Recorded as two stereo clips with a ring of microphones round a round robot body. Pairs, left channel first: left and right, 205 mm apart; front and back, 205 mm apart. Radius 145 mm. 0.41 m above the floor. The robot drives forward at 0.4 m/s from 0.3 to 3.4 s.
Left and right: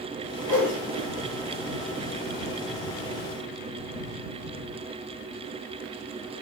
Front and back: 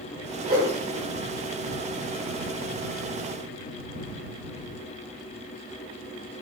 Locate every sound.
0.4 s a whoosh: 165° right, 2 m